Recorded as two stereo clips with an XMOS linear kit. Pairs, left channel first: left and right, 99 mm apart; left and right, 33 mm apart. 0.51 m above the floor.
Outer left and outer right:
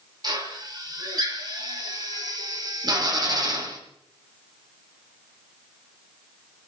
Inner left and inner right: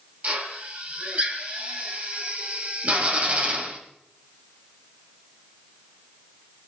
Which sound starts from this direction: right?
A drill, at 0.2 s.